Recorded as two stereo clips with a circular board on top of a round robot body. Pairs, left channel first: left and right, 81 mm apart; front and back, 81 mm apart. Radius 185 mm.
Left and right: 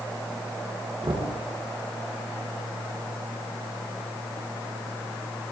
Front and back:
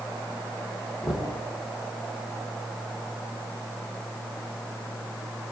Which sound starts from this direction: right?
Knocking, at 1.0 s.